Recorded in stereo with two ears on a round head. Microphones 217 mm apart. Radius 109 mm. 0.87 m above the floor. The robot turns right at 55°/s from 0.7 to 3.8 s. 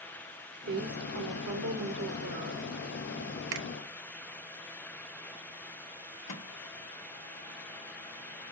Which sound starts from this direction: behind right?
A woman speaking, at 0.7 s.